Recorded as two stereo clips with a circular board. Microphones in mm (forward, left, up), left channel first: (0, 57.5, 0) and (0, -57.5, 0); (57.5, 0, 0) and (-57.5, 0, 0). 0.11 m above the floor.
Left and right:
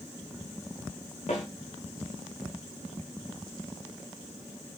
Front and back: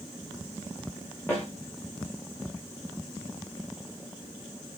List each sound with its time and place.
1.3 s a snare drum: 75° left, 5 m